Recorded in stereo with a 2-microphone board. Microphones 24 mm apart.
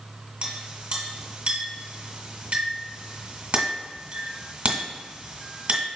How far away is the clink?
About 1.8 m.